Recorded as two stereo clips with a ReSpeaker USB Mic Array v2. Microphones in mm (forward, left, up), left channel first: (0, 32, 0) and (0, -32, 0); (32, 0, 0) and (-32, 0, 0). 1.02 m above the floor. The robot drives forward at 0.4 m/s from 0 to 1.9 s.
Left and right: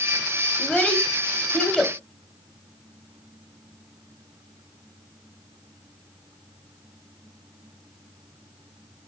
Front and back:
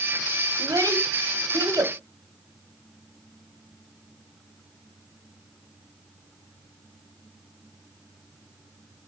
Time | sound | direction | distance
0.6 | a child speaking | 160° left | 2.0 m